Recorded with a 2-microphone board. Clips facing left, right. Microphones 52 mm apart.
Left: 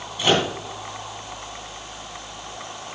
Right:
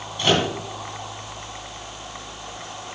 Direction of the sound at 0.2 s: 5° left (ahead or behind).